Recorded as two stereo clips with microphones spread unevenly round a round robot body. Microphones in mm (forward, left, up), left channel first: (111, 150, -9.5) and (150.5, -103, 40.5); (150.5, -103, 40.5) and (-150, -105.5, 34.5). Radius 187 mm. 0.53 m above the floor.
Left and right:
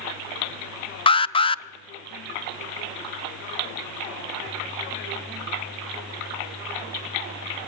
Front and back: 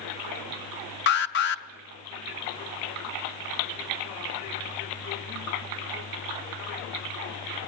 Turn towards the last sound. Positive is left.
turn(degrees=45)